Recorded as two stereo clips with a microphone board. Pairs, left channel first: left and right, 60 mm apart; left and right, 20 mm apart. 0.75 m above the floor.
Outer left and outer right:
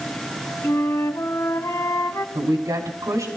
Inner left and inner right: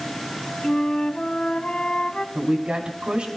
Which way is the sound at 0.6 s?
65° left (ahead or behind).